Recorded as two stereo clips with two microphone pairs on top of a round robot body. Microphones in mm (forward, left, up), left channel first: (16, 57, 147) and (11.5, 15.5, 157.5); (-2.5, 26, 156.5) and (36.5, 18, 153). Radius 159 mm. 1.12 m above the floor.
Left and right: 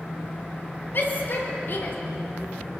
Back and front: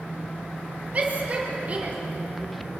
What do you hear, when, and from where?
0.9 s a shout: 45° left, 4 m